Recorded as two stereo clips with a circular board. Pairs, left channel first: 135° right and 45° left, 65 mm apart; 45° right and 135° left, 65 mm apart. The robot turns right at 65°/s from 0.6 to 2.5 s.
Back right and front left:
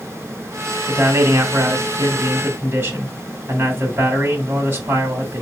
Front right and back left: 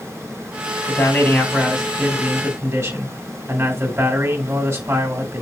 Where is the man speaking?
10° right, 2 m; by 5.4 s 95° left, 2 m.